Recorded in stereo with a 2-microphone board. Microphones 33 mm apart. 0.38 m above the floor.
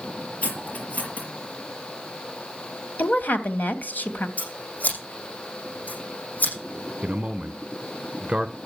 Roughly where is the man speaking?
Right.